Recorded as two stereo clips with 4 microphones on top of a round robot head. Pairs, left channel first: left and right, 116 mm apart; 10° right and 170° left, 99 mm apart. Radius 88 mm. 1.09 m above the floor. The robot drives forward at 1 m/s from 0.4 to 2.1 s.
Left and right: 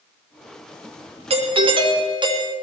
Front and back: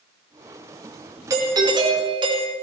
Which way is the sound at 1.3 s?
125° right.